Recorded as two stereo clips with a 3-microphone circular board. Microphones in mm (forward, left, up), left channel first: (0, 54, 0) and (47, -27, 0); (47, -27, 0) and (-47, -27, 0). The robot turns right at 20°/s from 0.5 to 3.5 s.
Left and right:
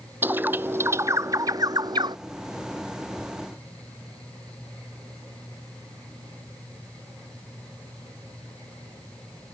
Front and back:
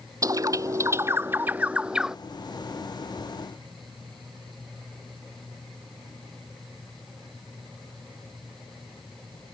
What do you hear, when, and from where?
0.2 s a bird: 130° right; by 2.2 s 95° right